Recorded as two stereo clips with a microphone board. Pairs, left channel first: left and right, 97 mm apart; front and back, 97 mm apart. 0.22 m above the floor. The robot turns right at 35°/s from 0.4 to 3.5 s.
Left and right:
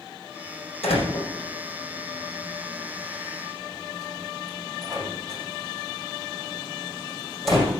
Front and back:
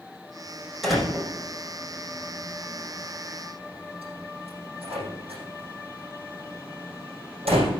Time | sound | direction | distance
0.8 | a door slam | 90° left | 5.5 m